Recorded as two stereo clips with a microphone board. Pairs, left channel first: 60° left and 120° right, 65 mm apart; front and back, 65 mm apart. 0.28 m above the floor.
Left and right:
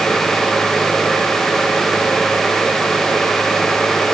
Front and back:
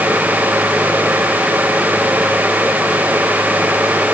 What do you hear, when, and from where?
Only background noise.